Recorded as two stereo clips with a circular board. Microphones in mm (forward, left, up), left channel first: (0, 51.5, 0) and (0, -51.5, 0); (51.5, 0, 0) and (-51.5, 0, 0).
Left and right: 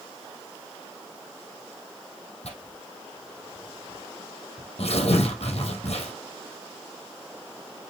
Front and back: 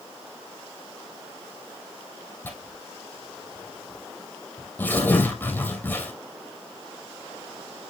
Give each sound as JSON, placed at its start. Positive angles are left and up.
{"t": 2.4, "sound": "tearing paper", "azimuth_deg": 70, "distance_m": 2.5}